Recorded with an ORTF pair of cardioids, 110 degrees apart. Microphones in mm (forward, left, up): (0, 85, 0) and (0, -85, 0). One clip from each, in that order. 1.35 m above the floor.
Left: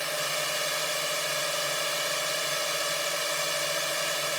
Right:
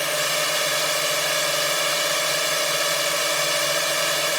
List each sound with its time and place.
0.0 s a drone: 40° right